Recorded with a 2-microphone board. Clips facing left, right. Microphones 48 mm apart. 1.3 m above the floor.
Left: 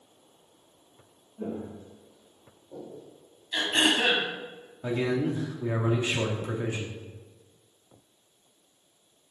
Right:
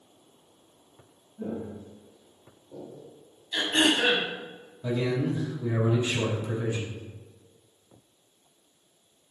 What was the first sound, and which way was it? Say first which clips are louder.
Footsteps: right 1 dB; 30° left (ahead or behind).